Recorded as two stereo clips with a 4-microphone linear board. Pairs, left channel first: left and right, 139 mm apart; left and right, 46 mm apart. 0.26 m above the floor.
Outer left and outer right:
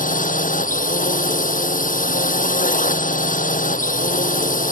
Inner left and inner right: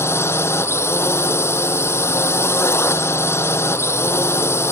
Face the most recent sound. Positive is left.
turn(degrees=75)  # may be behind; listen again after turning